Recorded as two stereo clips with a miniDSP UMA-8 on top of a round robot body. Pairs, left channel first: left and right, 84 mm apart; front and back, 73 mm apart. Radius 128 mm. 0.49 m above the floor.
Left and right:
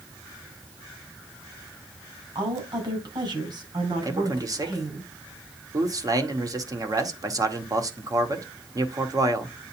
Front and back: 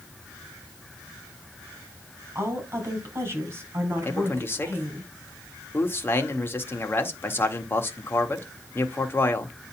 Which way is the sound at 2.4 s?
125° right.